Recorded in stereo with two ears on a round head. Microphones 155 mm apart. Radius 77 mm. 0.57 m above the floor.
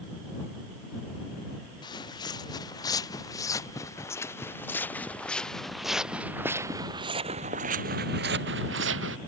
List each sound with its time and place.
1.8 s footsteps: 25° left (ahead or behind); by 9.2 s 80° right